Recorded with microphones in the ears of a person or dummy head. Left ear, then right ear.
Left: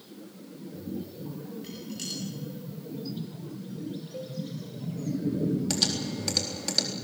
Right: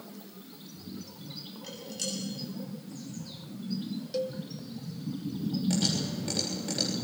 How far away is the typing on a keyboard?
About 4 m.